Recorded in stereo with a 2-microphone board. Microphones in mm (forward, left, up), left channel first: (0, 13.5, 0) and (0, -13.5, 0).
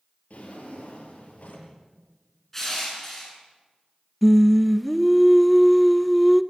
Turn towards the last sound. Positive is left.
turn(degrees=-5)  # may be behind; listen again after turning